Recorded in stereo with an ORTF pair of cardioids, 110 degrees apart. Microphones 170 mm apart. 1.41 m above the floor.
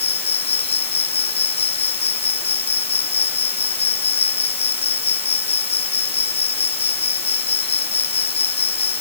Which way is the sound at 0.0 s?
35° left.